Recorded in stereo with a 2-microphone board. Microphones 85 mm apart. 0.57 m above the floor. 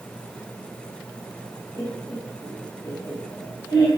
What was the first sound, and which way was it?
Laughter, 60° left (ahead or behind).